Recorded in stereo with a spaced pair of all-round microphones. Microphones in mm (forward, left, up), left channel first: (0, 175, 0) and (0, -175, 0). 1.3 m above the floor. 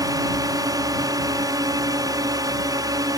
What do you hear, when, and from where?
0.0 s a drone: 10° right (ahead or behind)